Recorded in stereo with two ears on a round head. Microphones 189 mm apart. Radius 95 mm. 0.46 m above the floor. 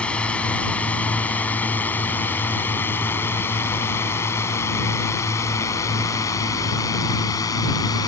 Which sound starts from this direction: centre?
A drone, at 0.0 s.